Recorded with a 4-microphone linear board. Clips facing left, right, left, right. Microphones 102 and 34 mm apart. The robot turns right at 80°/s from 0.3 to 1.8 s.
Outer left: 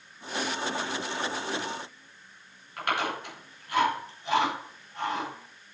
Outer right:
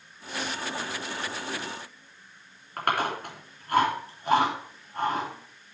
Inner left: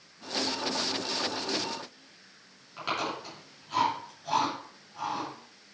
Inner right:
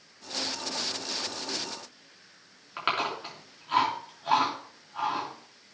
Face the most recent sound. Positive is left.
turn(degrees=-45)  # may be behind; listen again after turning